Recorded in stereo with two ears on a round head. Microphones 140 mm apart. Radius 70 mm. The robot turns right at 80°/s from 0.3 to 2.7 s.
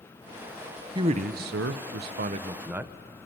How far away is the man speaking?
About 0.5 m.